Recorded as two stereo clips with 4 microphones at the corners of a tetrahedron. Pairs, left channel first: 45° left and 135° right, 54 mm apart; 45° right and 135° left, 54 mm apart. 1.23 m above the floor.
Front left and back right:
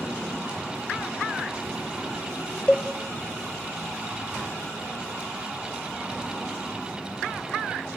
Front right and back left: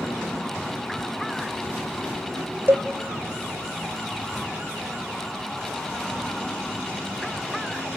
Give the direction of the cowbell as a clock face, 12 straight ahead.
9 o'clock.